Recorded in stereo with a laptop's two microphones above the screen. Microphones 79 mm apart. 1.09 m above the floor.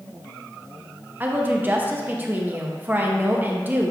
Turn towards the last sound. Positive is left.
turn(degrees=-25)  # may be behind; listen again after turning